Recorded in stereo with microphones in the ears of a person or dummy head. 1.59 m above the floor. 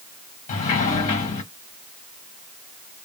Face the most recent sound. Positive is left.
turn(degrees=40)  # may be behind; listen again after turning